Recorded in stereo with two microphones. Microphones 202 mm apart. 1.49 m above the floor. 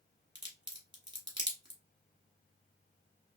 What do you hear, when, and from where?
0.3 s a crack: 20° right (ahead or behind), 1.1 m